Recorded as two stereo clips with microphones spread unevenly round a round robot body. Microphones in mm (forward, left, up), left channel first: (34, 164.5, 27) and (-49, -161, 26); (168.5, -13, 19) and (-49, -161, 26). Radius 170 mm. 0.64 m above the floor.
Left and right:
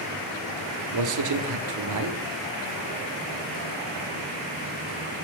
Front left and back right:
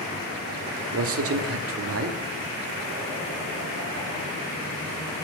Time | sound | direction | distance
0.9 | a man speaking | 125° right | 1.0 m